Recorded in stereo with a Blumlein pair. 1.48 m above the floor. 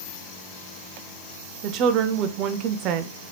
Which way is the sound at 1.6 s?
40° right.